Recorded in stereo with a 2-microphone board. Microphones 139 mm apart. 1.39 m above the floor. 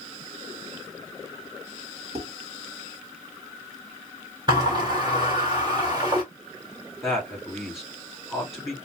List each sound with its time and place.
2.1 s dishes clattering: 45° right (ahead or behind), 2.5 m
4.5 s a sliding door: 30° right (ahead or behind), 3.5 m
7.0 s a man speaking: 5° right (ahead or behind), 3 m